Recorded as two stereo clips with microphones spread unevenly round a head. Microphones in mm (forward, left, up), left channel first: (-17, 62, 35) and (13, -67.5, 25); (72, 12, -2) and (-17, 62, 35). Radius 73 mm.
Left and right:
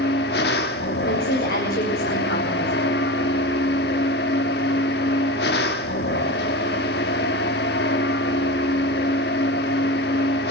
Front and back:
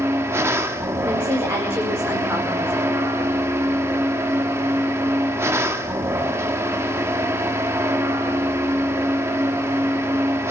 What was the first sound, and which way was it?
A machine running, 95° left.